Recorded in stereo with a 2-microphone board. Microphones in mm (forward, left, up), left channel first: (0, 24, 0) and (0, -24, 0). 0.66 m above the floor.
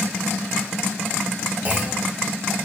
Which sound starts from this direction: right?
A clunk, at 1.6 s.